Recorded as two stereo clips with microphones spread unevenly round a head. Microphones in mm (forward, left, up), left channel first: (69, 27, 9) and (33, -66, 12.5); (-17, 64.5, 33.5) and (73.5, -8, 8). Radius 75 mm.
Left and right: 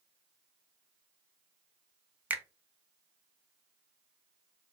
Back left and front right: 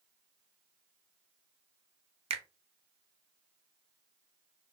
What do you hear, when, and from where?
2.3 s a finger snap: 40° right, 0.5 m